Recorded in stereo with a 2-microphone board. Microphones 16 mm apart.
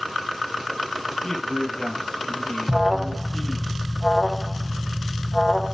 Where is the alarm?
20° right (ahead or behind), 1.2 m.